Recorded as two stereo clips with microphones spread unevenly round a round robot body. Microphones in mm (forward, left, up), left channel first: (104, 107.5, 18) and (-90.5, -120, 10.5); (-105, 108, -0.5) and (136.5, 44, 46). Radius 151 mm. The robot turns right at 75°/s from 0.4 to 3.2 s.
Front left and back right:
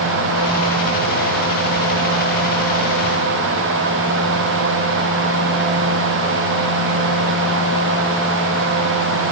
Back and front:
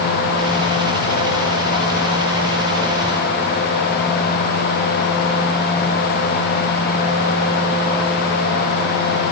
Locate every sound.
Only background noise.